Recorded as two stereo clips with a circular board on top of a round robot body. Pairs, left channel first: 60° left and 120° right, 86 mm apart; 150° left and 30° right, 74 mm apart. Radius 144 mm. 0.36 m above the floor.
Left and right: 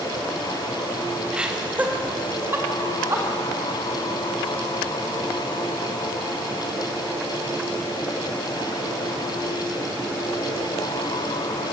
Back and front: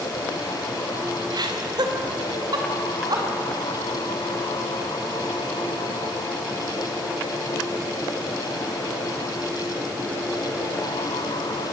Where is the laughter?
40° right, 3 m; by 3.2 s 60° right, 5.5 m.